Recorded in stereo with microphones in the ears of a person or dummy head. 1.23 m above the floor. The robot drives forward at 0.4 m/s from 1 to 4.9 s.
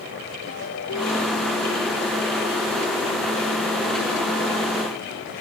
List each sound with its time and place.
0.5 s a ringtone: 90° left